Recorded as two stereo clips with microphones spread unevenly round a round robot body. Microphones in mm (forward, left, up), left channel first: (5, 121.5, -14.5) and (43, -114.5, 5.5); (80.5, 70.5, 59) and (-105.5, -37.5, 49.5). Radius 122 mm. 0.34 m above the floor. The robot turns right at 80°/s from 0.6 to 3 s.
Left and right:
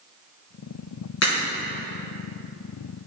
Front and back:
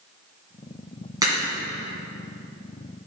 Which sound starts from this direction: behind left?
A crack, at 1.2 s.